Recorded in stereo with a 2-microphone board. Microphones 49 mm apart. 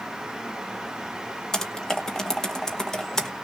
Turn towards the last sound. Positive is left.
turn(degrees=10)  # may be behind; listen again after turning